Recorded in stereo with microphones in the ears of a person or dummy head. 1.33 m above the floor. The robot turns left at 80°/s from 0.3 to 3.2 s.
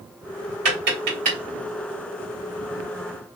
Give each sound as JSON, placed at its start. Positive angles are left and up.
{"t": 0.7, "sound": "tapping", "side_deg": -55, "distance_m": 1.8}